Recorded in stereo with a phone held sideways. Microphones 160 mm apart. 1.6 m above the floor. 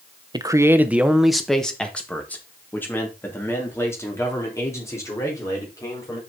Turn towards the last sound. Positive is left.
turn(degrees=20)  # may be behind; listen again after turning